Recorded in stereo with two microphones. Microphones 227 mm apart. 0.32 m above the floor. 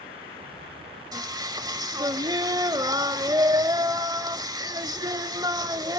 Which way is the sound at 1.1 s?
20° right (ahead or behind).